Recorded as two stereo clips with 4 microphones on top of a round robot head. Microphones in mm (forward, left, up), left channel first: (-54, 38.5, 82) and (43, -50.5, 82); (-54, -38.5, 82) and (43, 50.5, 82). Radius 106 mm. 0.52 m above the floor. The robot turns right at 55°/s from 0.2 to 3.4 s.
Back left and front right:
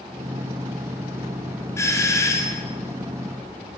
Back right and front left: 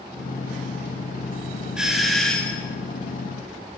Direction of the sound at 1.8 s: 115° left.